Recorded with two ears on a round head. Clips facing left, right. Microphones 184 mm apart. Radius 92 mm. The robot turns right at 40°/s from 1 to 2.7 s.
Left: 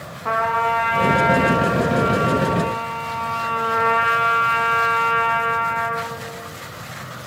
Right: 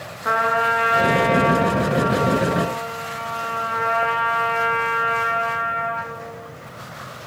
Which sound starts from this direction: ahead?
A trumpet, at 0.2 s.